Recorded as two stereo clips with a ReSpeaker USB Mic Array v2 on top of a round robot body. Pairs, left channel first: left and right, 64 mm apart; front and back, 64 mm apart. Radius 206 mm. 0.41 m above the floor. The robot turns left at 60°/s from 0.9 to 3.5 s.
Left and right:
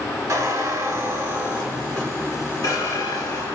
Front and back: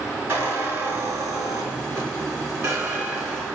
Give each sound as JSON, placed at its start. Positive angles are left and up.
{"t": 0.3, "sound": "a squeak", "azimuth_deg": -125, "distance_m": 1.7}